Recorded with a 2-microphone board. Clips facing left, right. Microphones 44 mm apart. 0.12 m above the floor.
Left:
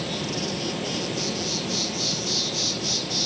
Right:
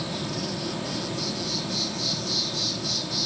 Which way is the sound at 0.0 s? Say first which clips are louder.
Left 2 dB; 70° left (ahead or behind).